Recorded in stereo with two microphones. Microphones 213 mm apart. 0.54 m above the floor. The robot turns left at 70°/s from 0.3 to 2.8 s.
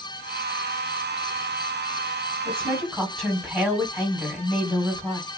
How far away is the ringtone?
No ringtone in this recording.